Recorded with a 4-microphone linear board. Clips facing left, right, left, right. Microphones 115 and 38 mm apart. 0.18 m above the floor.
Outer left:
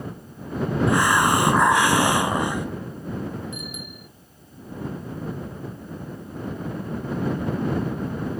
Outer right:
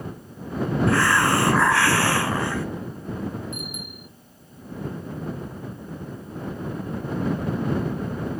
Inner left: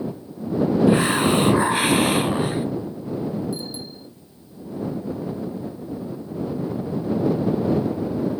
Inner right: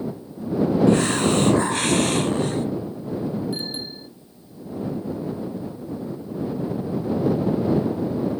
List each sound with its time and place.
0.9 s a hiss: 15° left (ahead or behind)
3.5 s a bicycle bell: 55° right (ahead or behind)